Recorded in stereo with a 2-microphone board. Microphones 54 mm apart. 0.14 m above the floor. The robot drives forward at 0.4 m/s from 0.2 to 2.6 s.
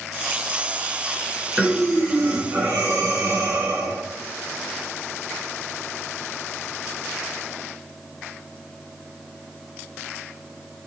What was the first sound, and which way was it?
Breathing, 30° right (ahead or behind).